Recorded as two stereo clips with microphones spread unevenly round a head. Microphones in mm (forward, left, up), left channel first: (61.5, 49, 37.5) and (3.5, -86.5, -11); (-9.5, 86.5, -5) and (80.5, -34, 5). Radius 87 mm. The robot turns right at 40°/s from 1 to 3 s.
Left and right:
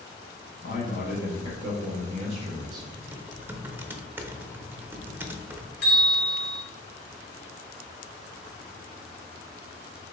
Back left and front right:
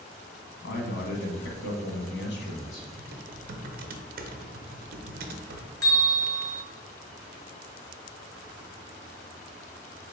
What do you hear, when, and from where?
0.6 s a man speaking: 110° left, 1.1 m; by 2.9 s 175° right, 1.1 m
3.0 s typing on a keyboard: 55° right, 0.6 m
5.8 s a bell: 55° left, 1.9 m